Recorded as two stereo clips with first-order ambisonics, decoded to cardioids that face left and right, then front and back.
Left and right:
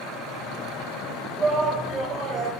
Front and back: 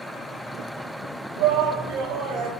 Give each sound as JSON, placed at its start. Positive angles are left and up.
{"t": 1.4, "sound": "a shout", "azimuth_deg": -160, "distance_m": 3.5}